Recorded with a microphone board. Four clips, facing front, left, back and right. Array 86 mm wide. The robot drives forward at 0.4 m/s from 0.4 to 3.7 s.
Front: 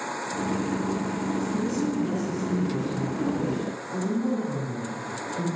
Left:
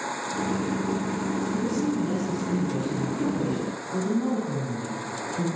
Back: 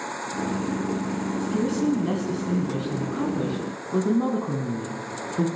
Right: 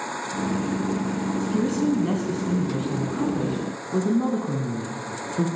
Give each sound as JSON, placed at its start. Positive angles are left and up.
{"t": 1.4, "sound": "a woman speaking", "azimuth_deg": -125, "distance_m": 2.5}